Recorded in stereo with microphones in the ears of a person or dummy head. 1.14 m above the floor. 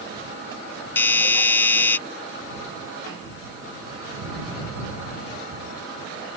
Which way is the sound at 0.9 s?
15° left (ahead or behind).